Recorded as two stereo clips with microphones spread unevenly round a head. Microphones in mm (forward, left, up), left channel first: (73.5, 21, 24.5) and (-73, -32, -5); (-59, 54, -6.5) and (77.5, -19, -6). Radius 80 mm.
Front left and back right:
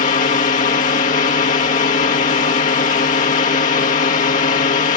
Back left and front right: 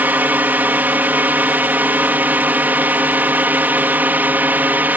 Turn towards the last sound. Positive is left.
turn(degrees=45)